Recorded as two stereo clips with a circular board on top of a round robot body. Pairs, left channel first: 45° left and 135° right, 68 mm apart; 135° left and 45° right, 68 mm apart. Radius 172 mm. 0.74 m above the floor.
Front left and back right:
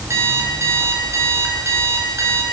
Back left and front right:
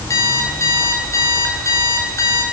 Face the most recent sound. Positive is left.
turn(degrees=180)